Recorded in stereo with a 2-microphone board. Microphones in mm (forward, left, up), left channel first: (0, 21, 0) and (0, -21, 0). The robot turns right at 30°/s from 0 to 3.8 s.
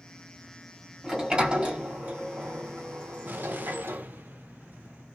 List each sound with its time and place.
1.0 s a sliding door: 15° right (ahead or behind), 1.4 m; by 4.0 s 75° right (ahead or behind), 1.4 m
3.2 s an explosion: 45° right (ahead or behind), 0.6 m